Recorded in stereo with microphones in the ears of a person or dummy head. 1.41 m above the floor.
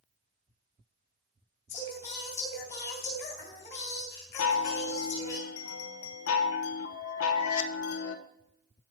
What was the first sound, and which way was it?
Singing, 40° left (ahead or behind).